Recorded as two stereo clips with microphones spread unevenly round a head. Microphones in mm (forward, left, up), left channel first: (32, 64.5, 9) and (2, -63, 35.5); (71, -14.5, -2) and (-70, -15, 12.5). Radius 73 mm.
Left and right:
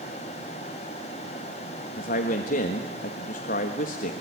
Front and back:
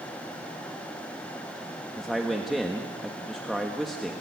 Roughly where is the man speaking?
Left.